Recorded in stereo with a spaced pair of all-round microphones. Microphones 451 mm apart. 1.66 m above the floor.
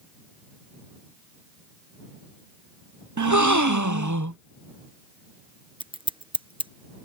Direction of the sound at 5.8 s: 10° right (ahead or behind).